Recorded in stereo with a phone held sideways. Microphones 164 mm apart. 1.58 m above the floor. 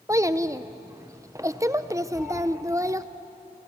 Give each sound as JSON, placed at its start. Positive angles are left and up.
{"t": 0.1, "sound": "a child speaking", "side_deg": -20, "distance_m": 0.5}
{"t": 2.1, "sound": "a cat meowing", "side_deg": -5, "distance_m": 3.0}